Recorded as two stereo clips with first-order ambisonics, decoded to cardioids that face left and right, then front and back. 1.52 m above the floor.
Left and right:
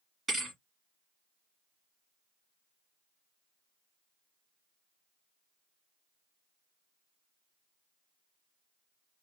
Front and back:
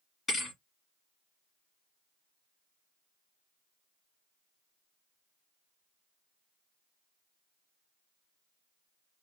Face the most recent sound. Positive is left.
turn(degrees=-35)